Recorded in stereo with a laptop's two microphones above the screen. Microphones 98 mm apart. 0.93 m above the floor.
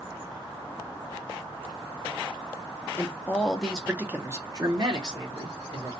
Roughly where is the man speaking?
Left.